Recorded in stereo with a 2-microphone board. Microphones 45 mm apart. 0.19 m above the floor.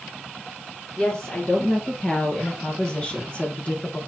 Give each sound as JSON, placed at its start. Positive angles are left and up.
{"t": 1.0, "sound": "a woman speaking", "side_deg": 20, "distance_m": 3.5}